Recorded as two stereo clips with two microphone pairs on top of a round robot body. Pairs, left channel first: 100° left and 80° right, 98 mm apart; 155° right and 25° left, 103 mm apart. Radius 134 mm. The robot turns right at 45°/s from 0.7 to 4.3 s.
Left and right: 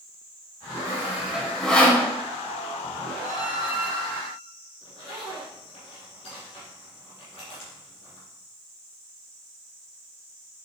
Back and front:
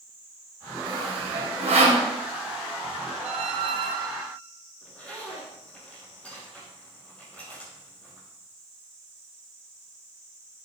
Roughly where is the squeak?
Ahead left.